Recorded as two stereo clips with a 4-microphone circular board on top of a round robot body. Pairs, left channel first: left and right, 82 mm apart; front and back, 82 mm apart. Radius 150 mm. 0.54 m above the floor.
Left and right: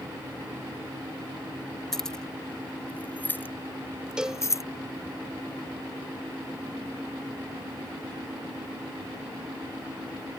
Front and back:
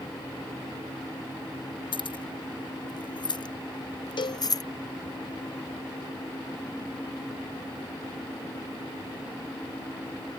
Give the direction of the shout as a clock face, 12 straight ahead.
No shout in this recording.